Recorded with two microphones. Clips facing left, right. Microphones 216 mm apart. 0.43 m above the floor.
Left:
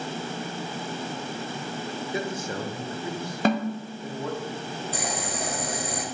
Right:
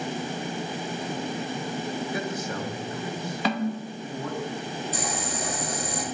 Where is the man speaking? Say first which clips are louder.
Even; 25° left (ahead or behind), 0.9 m; by 4.5 s 30° left (ahead or behind), 2 m.